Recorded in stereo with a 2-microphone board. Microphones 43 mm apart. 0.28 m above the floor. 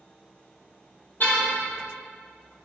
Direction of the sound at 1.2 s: 45° left (ahead or behind).